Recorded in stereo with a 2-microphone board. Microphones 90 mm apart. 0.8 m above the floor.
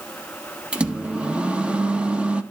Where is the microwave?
10° right (ahead or behind), 0.7 m.